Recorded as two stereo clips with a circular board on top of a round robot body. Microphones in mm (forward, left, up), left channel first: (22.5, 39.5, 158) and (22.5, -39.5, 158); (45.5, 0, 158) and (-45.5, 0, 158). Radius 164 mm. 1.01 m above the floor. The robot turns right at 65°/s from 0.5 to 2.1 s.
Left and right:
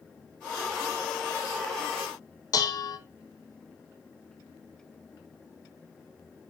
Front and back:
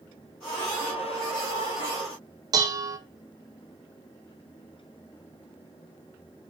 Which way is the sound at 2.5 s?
135° left.